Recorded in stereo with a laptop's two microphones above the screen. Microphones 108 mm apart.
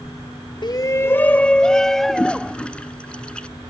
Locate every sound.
0.6 s a shout: 45° left (ahead or behind); by 2.6 s centre (ahead or behind)
2.1 s a toilet flushing: 10° left (ahead or behind)